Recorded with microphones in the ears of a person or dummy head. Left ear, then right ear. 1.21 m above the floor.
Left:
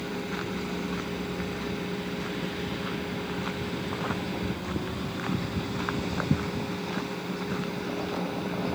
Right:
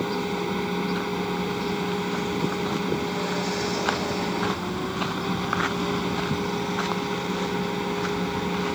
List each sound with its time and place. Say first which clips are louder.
0.0 s a fan: right 6 dB; 30° right (ahead or behind)